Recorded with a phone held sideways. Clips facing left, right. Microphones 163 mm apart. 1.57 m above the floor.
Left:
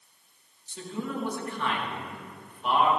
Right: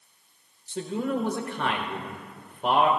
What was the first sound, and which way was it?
A man speaking, 85° right.